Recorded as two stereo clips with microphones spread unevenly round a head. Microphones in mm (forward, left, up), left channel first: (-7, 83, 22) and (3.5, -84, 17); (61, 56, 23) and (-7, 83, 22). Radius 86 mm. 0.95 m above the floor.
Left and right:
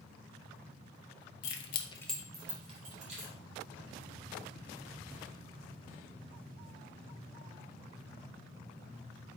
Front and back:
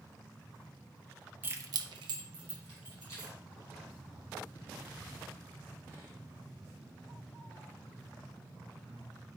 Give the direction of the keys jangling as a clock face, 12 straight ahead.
9 o'clock.